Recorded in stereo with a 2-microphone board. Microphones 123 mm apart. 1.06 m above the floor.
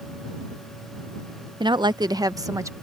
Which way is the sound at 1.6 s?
40° right (ahead or behind).